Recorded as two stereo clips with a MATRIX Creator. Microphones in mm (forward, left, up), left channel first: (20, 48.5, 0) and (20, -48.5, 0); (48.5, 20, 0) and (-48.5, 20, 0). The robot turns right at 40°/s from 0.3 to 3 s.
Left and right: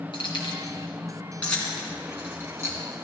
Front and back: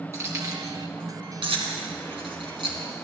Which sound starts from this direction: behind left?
Keys jangling, at 0.1 s.